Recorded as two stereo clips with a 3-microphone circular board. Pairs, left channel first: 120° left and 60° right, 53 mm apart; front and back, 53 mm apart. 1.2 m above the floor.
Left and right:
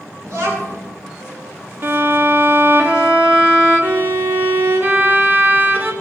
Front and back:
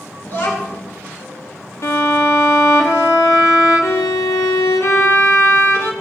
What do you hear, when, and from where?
0.2 s a child speaking: 40° right, 2.5 m
1.8 s a violin: 20° right, 1.1 m